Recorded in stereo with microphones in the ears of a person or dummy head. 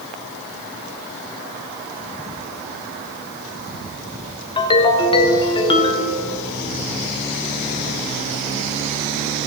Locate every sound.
4.6 s a ringtone: 25° left (ahead or behind), 1.3 m